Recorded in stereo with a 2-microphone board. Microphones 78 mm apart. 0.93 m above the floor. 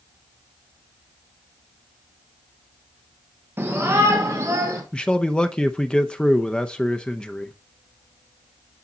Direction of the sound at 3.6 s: 30° right (ahead or behind).